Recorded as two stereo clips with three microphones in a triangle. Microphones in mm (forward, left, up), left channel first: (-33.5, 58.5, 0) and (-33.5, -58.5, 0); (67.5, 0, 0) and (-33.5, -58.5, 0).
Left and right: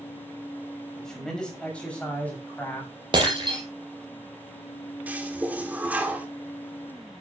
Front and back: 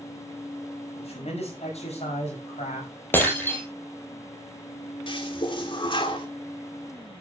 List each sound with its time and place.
1.0 s a man speaking: 5° left, 6 m; by 2.9 s 15° left, 7 m
3.1 s breaking glass: 40° right, 4.5 m
5.1 s a toilet flushing: 15° right, 2.5 m